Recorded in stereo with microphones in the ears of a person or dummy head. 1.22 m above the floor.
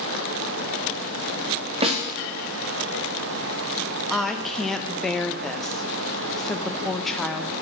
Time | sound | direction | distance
1.8 | a snare drum | 30° right (ahead or behind) | 2.5 m
4.1 | a woman speaking | centre (ahead or behind) | 1.0 m